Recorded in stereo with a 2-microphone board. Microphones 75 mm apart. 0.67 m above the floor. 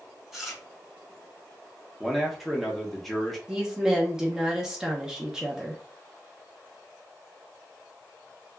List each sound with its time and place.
0.3 s chewing: 5° right (ahead or behind), 0.9 m
2.0 s a man speaking: centre (ahead or behind), 0.7 m
3.5 s a woman speaking: 10° right (ahead or behind), 0.6 m